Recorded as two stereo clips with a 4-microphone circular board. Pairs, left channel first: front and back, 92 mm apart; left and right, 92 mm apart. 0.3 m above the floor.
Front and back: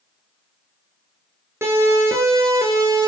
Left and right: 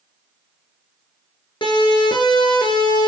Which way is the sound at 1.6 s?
120° left.